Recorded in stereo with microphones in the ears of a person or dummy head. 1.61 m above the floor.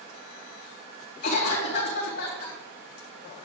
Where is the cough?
60° left (ahead or behind), 3.5 m.